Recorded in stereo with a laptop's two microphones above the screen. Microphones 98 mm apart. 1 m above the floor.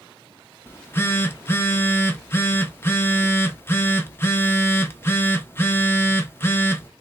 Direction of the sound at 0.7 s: 25° left (ahead or behind).